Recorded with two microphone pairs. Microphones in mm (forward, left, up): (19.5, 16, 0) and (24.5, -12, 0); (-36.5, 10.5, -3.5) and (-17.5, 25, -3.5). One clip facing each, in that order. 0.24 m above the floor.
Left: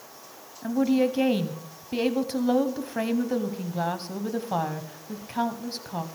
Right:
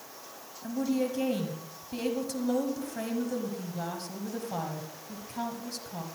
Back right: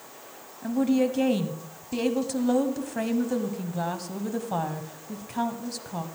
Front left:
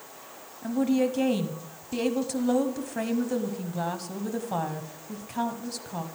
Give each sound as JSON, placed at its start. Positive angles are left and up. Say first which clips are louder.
{"t": 0.6, "sound": "a woman speaking", "louder": "left 7 dB, back right 1 dB", "azimuth_deg": 130, "distance_m": 1.5}